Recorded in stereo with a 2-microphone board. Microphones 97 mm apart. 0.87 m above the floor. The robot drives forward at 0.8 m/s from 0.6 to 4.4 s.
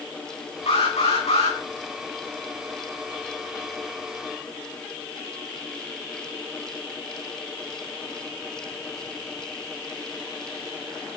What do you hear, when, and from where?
0.7 s an alarm: 85° left, 9 m